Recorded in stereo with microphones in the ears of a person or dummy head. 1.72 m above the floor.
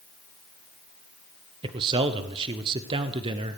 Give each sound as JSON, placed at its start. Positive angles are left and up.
{"t": 1.6, "sound": "a man speaking", "side_deg": -35, "distance_m": 0.8}